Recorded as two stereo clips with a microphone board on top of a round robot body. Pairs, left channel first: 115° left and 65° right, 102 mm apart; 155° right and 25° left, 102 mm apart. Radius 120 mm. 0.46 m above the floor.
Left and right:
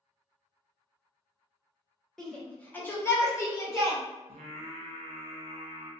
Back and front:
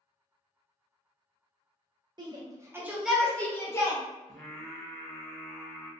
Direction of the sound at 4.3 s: 75° right.